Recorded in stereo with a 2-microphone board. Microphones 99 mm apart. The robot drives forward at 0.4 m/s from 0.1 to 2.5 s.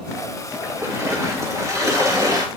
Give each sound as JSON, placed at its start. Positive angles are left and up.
{"t": 0.6, "sound": "a splash", "side_deg": -30, "distance_m": 3.0}